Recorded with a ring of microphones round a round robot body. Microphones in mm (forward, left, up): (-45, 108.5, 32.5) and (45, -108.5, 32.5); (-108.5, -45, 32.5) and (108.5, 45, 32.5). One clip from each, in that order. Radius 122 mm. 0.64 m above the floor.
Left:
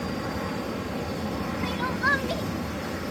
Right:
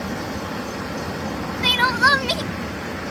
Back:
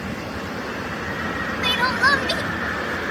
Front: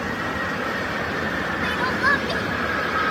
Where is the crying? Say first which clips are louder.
Right 11 dB, back 4 dB; 95° right.